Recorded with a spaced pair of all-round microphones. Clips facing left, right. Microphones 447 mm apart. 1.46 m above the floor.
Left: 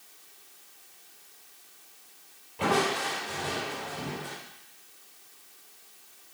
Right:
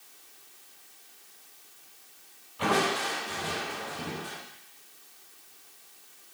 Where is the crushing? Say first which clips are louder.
Left 1 dB; 75° left (ahead or behind), 6 m.